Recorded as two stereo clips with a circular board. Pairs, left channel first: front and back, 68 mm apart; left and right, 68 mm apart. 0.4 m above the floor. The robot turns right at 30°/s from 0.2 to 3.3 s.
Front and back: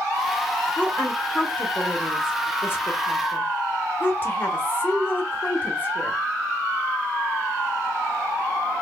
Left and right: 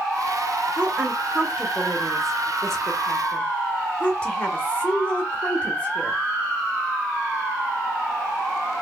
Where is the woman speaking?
45° right, 1.1 m; by 6.2 s 30° left, 1.1 m.